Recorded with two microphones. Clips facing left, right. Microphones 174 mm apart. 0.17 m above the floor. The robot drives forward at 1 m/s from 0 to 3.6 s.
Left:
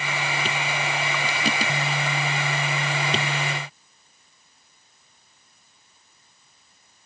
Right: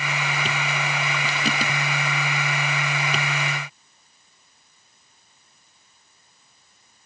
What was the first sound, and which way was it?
Only background noise.